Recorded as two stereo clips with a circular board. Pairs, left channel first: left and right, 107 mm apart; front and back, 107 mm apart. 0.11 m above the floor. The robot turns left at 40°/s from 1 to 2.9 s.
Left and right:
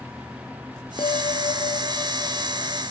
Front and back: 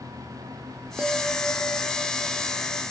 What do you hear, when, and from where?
1.0 s a bell: 100° left, 0.6 m; by 2.8 s 25° left, 0.6 m